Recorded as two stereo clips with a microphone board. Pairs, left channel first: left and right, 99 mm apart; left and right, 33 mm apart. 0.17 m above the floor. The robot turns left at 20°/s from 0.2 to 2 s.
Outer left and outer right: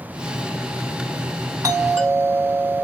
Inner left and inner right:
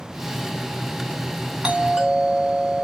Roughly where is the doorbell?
Right.